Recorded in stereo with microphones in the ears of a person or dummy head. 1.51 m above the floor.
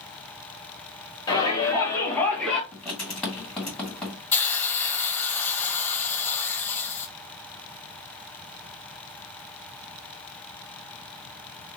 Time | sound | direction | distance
1.3 | a shout | 20° left (ahead or behind) | 1.9 m
2.7 | writing | 5° left (ahead or behind) | 2 m
4.3 | a hiss | 10° left (ahead or behind) | 0.5 m